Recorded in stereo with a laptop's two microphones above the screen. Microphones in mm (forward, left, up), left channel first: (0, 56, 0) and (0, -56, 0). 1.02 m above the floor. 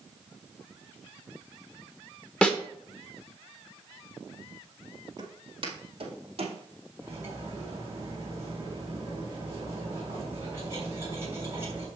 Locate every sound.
2.4 s a snare drum: 10° left (ahead or behind), 1.1 m
5.2 s footsteps: 35° right (ahead or behind), 1.6 m; by 6.6 s 55° right (ahead or behind), 2.5 m
7.0 s cutlery clinking: 20° right (ahead or behind), 3 m